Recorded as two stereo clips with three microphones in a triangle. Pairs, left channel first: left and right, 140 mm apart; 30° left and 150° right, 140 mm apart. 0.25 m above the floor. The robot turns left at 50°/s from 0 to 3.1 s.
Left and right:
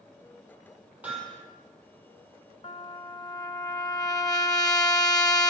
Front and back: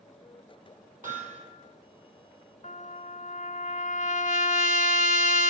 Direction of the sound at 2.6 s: 55° left.